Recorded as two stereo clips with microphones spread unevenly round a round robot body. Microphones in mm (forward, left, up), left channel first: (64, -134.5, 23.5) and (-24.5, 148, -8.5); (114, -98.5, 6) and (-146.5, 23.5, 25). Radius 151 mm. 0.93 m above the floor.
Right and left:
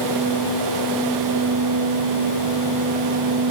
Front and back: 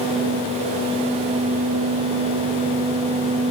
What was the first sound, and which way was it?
Only background noise.